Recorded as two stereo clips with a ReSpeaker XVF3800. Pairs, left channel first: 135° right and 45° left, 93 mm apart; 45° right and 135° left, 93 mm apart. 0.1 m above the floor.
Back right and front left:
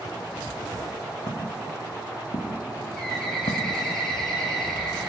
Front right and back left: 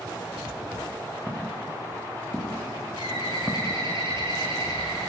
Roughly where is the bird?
Behind left.